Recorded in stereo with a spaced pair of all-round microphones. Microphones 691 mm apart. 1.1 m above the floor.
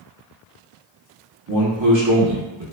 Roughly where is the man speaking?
Right.